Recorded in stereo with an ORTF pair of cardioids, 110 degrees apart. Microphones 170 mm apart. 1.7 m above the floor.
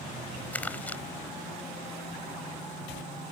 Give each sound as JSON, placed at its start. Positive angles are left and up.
{"t": 0.5, "sound": "crumpling", "azimuth_deg": 10}